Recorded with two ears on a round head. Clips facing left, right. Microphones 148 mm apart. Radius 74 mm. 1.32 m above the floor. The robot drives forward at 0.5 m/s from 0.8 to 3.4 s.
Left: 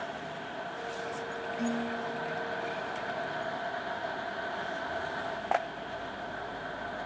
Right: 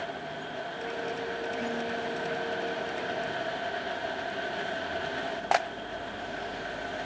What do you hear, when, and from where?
1.6 s dishes clattering: 35° left (ahead or behind), 8.5 m